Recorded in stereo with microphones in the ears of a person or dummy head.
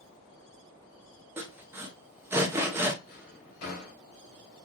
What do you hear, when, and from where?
1.4 s sawing: 10° right (ahead or behind), 0.5 m
3.1 s a drawer: 55° left (ahead or behind), 1.3 m